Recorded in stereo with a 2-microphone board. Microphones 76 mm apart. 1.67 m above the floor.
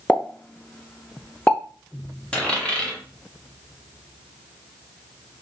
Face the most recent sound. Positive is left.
turn(degrees=15)  # may be behind; listen again after turning